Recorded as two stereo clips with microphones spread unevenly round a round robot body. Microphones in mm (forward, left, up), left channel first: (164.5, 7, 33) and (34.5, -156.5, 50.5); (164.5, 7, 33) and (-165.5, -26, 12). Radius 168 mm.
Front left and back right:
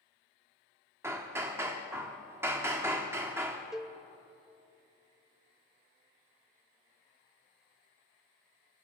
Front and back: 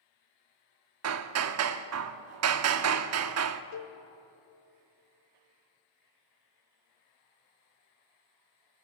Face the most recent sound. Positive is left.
turn(degrees=-35)